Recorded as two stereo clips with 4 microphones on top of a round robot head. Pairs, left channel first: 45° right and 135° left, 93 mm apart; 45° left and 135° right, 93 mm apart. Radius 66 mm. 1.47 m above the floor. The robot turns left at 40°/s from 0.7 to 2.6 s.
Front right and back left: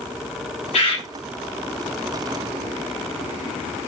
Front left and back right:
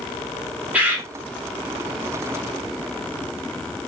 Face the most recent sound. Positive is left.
turn(degrees=-130)